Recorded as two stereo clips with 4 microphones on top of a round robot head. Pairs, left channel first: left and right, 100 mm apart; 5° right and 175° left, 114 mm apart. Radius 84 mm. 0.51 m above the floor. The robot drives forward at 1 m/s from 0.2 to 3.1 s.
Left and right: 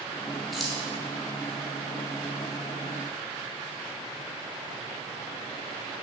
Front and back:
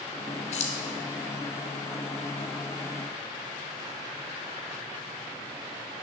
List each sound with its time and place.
0.5 s keys jangling: straight ahead, 1.5 m